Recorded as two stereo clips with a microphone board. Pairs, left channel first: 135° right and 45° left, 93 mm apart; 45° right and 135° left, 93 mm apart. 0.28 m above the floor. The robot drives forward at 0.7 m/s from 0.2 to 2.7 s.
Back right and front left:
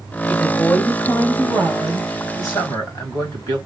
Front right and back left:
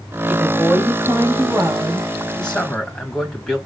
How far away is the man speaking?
About 1.8 m.